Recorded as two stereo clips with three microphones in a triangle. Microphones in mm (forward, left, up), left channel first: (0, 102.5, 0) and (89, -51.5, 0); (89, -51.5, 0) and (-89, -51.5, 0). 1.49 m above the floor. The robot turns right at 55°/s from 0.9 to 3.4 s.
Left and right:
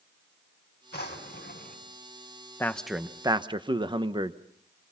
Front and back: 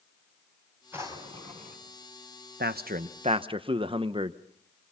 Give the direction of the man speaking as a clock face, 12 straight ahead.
5 o'clock.